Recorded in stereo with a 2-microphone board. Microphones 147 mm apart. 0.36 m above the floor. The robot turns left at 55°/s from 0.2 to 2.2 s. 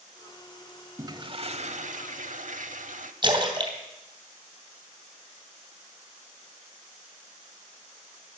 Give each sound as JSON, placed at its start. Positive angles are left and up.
{"t": 1.0, "sound": "a toilet flushing", "azimuth_deg": -25, "distance_m": 0.9}
{"t": 3.2, "sound": "a splash", "side_deg": -30, "distance_m": 2.5}